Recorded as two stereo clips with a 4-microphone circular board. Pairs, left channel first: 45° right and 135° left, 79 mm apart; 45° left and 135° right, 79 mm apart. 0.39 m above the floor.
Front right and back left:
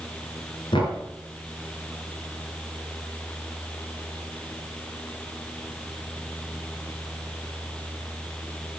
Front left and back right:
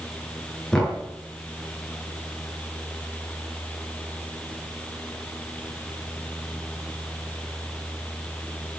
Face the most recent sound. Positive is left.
turn(degrees=-35)